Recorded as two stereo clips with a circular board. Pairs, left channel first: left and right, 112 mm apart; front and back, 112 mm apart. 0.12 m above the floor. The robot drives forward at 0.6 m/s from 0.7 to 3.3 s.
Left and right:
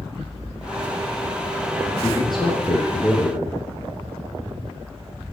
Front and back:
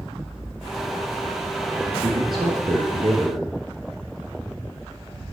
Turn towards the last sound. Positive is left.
turn(degrees=140)